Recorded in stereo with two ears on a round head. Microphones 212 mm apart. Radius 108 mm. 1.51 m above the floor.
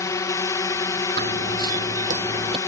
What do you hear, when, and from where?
0.0 s a drone: 15° left (ahead or behind)
1.2 s running footsteps: 45° right (ahead or behind); by 2.6 s 20° right (ahead or behind)